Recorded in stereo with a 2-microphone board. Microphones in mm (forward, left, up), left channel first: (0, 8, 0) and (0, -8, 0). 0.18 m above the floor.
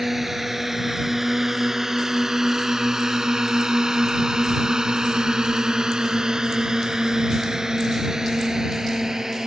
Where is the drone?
15° right (ahead or behind); by 9.5 s 35° right (ahead or behind).